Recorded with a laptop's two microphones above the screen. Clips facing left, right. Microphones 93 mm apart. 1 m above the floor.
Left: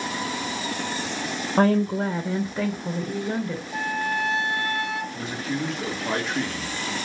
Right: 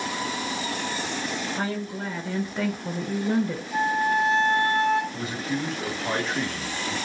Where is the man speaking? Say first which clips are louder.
Even; centre (ahead or behind), 1.1 m.